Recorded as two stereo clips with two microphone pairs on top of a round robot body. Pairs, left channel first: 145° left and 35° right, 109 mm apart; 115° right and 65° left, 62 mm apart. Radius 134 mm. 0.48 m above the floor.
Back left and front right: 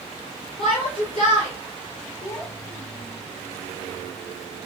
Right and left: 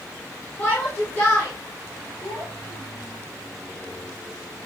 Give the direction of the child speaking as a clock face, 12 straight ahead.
5 o'clock.